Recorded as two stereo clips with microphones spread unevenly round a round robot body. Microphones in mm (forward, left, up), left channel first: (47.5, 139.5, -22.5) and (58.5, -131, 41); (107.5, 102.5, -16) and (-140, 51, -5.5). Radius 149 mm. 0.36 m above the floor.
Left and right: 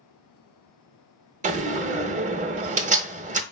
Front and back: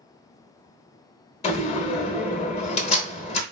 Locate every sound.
1.4 s a door slam: 20° right, 0.7 m